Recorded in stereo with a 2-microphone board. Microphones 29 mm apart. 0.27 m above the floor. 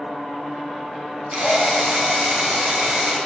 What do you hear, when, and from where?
1.3 s a drill: 25° right (ahead or behind), 3 m